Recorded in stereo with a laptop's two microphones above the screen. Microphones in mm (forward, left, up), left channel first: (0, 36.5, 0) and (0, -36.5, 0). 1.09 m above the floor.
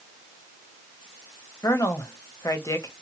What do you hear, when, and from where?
1.6 s a woman speaking: 45° left (ahead or behind), 0.9 m